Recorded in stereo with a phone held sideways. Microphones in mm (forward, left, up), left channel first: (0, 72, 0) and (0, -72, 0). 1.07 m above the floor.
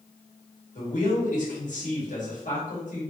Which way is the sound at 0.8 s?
60° left (ahead or behind).